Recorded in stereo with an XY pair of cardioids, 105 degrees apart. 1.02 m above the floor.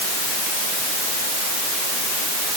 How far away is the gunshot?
No gunshot in this recording.